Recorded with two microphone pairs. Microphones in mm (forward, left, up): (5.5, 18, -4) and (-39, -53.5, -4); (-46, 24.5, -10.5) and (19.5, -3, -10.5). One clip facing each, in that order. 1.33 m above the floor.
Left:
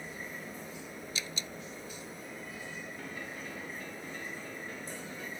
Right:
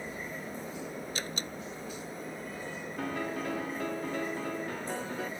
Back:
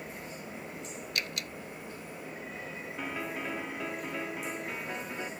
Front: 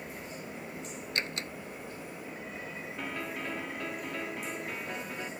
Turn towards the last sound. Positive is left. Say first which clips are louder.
# right 8 dB, back 1 dB
turn(degrees=-120)